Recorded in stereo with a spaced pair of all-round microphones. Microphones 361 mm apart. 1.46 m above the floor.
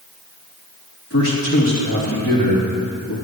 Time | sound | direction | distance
1.1 | a man speaking | 40° left (ahead or behind) | 3.5 m